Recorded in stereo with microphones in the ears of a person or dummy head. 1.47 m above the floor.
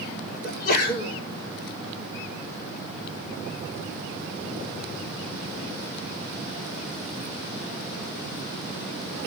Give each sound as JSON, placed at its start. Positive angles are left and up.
{"t": 0.4, "sound": "a sneeze", "side_deg": 55, "distance_m": 4.0}